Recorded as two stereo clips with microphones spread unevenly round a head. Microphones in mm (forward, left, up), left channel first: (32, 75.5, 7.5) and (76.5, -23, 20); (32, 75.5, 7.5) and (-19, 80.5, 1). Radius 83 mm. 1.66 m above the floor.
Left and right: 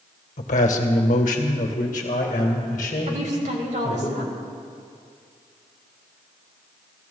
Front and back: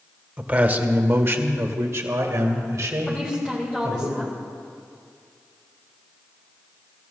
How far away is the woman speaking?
About 2.5 m.